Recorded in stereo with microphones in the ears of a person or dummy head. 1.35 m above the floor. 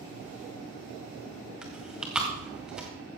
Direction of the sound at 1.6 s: 5° right (ahead or behind).